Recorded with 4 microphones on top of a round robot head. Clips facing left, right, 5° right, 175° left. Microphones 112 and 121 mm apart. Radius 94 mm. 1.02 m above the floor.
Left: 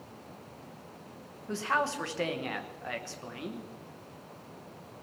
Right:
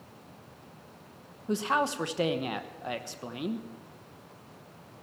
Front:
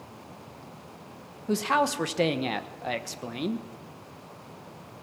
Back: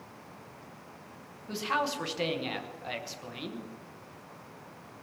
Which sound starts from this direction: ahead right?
A man speaking, at 1.5 s.